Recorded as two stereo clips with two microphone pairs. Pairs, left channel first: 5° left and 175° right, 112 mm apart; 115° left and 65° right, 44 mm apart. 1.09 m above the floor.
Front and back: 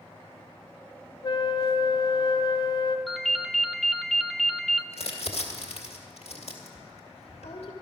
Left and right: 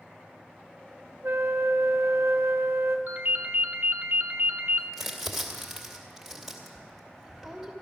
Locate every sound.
1.2 s a flute: 35° right, 0.6 m
3.1 s a ringtone: 85° right, 0.7 m
4.9 s crumpling: 20° left, 2 m